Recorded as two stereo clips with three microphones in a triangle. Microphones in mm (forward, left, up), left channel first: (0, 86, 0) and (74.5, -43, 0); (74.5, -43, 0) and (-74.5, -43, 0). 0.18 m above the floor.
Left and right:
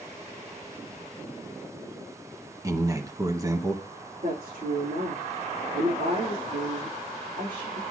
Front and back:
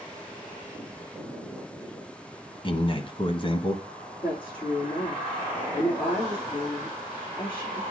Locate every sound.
2.6 s a man speaking: 10° right, 1.6 m
4.2 s a woman speaking: 50° right, 7 m